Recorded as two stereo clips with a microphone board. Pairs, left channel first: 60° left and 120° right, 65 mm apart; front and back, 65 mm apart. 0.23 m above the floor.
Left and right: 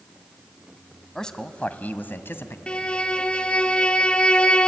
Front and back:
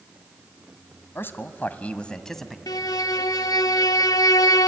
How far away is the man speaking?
About 1.6 m.